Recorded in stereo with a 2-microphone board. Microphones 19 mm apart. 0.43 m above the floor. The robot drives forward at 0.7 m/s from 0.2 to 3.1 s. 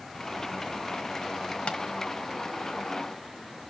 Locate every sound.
1.7 s tapping: 75° left (ahead or behind), 1.2 m; by 1.8 s 70° left (ahead or behind), 1.3 m